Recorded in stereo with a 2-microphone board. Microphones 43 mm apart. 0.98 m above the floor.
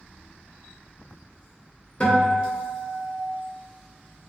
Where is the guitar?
30° left (ahead or behind), 0.9 m.